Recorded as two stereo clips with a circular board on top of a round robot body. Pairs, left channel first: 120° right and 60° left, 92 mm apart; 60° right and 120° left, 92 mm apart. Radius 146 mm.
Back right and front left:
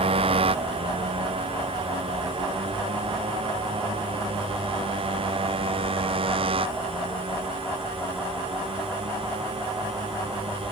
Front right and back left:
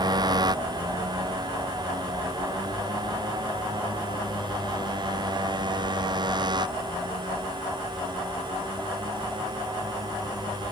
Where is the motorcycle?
75° left; by 10.7 s 80° left.